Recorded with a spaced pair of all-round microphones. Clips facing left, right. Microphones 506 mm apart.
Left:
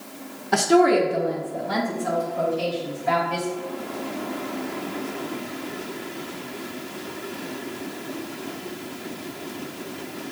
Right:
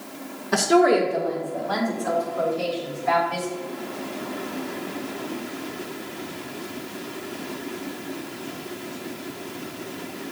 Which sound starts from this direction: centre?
A woman speaking, at 0.5 s.